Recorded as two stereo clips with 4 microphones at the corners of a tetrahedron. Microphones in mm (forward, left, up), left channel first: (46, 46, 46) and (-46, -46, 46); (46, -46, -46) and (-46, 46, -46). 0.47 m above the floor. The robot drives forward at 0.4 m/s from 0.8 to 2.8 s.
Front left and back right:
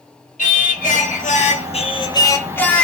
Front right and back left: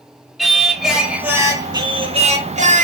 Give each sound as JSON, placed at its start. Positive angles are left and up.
{"t": 0.4, "sound": "singing", "azimuth_deg": 45, "distance_m": 0.7}